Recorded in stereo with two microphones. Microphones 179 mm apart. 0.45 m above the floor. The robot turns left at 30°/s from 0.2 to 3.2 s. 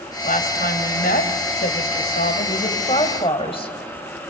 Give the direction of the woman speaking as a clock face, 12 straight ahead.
8 o'clock.